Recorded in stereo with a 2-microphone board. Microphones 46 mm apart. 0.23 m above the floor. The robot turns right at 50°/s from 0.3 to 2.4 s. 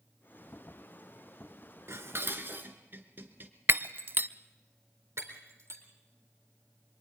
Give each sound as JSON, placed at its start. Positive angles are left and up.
{"t": 1.9, "sound": "dishes clattering", "side_deg": -65, "distance_m": 2.0}
{"t": 3.7, "sound": "breaking glass", "side_deg": -45, "distance_m": 0.7}
{"t": 5.2, "sound": "breaking glass", "side_deg": -70, "distance_m": 4.0}